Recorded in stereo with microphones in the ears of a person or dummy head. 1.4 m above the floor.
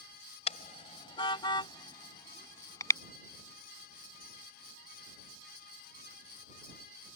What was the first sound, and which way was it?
A car horn, 40° left (ahead or behind).